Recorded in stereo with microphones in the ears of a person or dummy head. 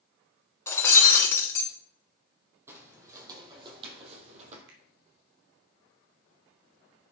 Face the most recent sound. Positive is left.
turn(degrees=-80)